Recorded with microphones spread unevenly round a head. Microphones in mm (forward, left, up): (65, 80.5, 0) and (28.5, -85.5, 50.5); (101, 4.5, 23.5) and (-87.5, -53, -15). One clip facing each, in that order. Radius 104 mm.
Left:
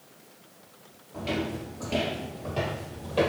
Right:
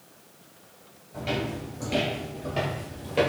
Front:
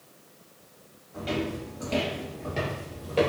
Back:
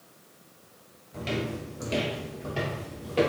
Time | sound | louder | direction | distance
1.1 | footsteps | even, front 1 dB | 135° right | 1.5 m